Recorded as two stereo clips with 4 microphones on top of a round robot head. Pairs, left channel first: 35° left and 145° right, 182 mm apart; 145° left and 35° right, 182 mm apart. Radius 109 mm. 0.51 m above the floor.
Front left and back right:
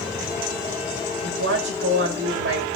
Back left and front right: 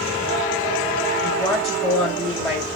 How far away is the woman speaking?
About 3.5 m.